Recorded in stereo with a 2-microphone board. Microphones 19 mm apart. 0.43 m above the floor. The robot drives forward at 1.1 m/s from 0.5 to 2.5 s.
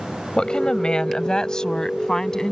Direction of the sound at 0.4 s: 55° left (ahead or behind).